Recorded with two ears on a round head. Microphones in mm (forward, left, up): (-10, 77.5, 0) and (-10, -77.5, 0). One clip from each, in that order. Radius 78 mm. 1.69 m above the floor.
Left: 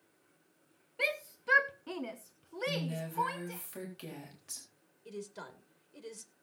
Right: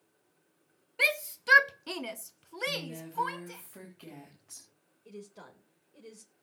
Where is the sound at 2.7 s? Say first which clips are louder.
Right 1 dB; 85° left, 4 m.